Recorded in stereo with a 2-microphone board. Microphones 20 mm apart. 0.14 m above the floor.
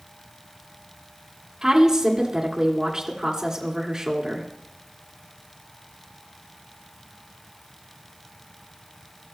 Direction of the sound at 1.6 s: 30° right (ahead or behind).